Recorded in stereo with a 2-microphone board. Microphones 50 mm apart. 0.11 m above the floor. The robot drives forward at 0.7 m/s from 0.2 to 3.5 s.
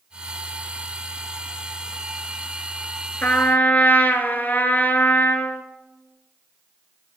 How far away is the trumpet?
About 1.1 m.